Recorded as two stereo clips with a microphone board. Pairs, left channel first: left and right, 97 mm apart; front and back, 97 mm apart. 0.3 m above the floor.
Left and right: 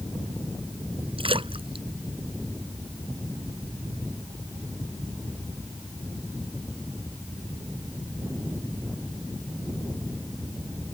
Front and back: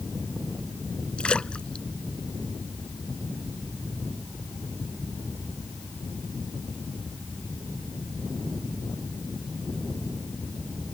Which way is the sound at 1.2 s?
80° right.